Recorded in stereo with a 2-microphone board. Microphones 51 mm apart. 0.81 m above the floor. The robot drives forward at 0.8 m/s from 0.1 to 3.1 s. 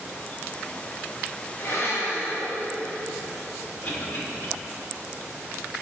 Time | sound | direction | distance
1.6 | a blender | 60° left (ahead or behind) | 1.3 m
3.8 | a cough | 45° left (ahead or behind) | 2 m